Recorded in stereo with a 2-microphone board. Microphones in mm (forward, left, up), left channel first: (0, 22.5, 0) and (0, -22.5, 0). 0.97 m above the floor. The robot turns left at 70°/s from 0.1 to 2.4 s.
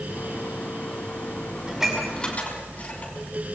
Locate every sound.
1.7 s dishes clattering: 20° right (ahead or behind), 6 m; by 3.1 s 30° left (ahead or behind), 6 m